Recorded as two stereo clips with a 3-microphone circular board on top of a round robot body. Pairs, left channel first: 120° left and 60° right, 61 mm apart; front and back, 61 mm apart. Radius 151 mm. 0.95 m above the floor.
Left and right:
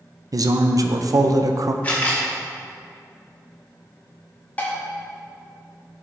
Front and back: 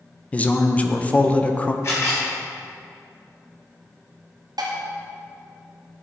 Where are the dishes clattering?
175° right, 1.2 m.